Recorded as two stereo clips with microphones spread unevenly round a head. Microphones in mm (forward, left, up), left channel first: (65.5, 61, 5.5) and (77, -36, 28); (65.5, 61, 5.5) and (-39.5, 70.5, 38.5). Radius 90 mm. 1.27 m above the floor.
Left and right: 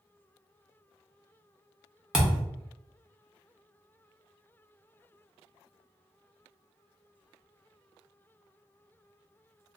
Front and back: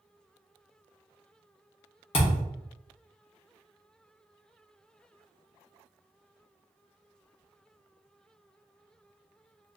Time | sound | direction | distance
2.1 | a thud | 35° right | 0.8 m